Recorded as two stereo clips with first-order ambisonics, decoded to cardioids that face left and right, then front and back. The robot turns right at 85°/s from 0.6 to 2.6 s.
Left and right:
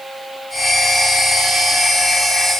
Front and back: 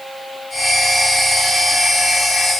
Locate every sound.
Only background noise.